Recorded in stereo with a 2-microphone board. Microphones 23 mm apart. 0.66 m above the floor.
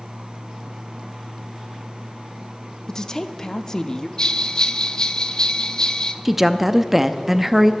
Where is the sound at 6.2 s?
10° right (ahead or behind), 0.5 m.